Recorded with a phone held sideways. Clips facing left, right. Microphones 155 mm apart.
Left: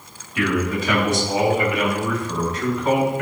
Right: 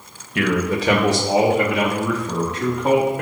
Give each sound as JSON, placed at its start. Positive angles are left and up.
{"t": 0.3, "sound": "a man speaking", "side_deg": -65, "distance_m": 1.7}